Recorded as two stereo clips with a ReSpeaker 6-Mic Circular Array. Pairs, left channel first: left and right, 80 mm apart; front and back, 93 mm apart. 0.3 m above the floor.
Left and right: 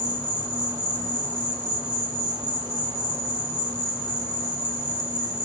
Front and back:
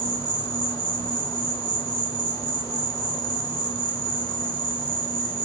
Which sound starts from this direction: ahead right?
An insect, at 0.0 s.